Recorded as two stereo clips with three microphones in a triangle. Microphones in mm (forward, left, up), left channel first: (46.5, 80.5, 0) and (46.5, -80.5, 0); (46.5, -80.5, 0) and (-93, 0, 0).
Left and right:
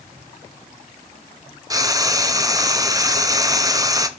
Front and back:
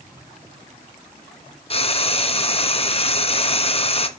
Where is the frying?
35° right, 0.6 m.